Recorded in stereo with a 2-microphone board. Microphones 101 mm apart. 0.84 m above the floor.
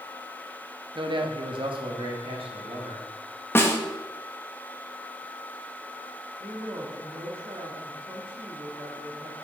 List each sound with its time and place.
0.9 s a man speaking: 60° right (ahead or behind), 1.2 m; by 3.1 s 75° right (ahead or behind), 2 m
3.5 s a snare drum: 25° left (ahead or behind), 1.1 m
6.4 s a woman speaking: 65° right (ahead or behind), 2 m